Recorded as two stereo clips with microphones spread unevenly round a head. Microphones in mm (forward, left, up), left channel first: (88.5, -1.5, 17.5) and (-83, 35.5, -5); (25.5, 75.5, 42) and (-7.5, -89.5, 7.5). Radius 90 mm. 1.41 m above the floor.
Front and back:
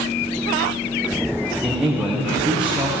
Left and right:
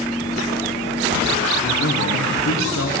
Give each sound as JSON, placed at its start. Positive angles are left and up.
{"t": 1.6, "sound": "a man speaking", "azimuth_deg": 85, "distance_m": 1.4}